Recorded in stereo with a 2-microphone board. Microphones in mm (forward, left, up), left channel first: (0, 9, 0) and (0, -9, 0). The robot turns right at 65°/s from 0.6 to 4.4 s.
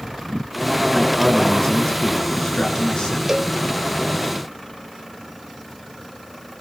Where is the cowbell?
25° right (ahead or behind), 1.5 m; by 3.5 s 10° right (ahead or behind), 1.5 m.